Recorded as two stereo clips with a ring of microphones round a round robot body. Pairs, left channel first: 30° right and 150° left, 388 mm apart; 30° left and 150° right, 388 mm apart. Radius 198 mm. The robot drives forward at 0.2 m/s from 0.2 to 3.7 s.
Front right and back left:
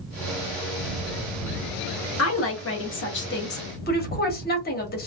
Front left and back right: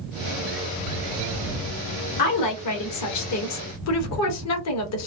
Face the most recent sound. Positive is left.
turn(degrees=20)